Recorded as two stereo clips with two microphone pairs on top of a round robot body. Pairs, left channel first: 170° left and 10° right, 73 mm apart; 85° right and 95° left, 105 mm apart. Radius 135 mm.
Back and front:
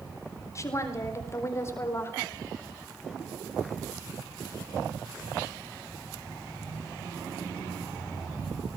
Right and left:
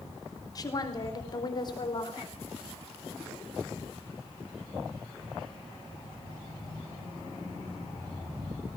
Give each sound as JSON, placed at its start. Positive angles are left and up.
{"t": 0.6, "sound": "a woman speaking", "azimuth_deg": -140, "distance_m": 4.0}